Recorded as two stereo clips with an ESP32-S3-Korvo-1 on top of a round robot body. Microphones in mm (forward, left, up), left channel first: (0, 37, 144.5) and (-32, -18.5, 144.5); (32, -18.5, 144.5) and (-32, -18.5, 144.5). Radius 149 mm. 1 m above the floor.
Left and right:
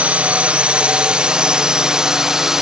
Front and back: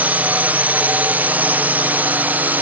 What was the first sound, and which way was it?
A drone, 160° right.